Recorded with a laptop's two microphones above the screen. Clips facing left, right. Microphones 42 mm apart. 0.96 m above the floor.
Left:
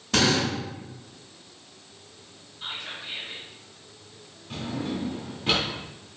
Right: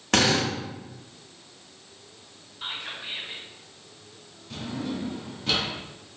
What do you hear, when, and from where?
0.1 s a drill: 70° right (ahead or behind), 1.4 m
2.6 s whispering: 30° right (ahead or behind), 0.9 m
4.5 s a drawer: 30° left (ahead or behind), 1.0 m